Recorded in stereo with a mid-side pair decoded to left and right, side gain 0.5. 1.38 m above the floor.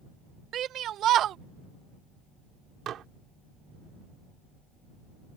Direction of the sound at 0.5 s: 60° right.